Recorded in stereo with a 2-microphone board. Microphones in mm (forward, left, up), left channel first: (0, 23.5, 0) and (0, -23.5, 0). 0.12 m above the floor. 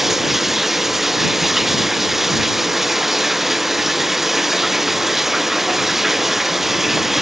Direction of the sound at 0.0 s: 5° right (ahead or behind).